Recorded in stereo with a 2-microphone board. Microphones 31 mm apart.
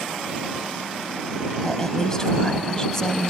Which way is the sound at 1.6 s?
20° left (ahead or behind).